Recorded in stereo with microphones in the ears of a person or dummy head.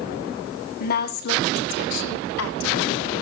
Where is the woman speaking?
50° left (ahead or behind), 2 m; by 3.1 s 90° left, 2.5 m.